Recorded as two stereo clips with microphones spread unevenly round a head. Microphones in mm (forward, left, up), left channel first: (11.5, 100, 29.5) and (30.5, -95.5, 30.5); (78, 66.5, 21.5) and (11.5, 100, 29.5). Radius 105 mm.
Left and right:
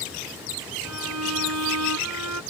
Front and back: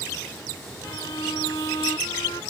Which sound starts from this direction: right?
A violin, at 0.8 s.